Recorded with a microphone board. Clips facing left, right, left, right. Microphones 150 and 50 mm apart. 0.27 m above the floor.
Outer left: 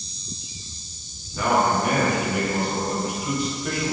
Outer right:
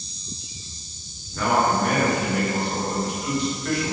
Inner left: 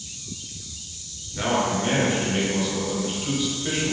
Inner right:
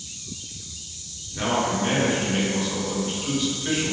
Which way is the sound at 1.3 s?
10° left (ahead or behind).